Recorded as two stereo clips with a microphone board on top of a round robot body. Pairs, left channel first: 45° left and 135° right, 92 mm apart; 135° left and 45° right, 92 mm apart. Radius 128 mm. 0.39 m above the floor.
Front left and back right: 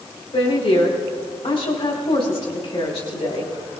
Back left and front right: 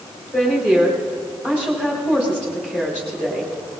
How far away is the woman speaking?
About 3 m.